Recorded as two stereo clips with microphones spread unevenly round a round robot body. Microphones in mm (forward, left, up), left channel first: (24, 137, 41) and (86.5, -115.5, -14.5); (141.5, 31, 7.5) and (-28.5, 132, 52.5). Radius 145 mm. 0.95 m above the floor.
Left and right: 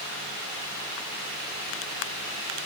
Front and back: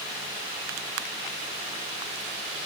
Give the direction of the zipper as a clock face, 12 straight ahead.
I don't hear a zipper.